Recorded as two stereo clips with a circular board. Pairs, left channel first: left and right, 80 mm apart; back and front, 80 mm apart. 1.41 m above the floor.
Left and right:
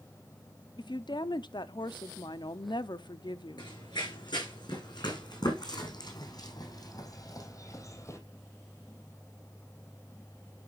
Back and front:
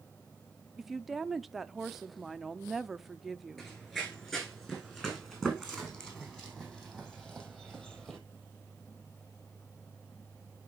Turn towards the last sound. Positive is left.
turn(degrees=95)